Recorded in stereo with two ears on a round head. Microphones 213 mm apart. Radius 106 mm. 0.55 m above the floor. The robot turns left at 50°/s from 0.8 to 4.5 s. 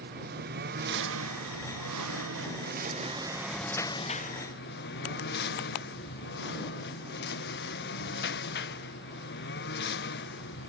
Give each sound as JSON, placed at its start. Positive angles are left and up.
{"t": 0.0, "sound": "a lawn mower", "side_deg": -40}